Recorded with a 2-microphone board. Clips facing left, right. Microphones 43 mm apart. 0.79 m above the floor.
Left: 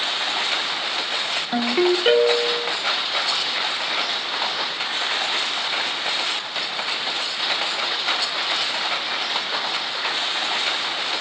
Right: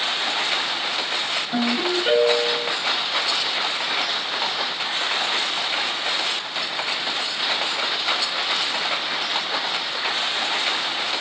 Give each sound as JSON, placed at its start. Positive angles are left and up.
{"t": 1.5, "sound": "a ringtone", "side_deg": 60, "distance_m": 1.5}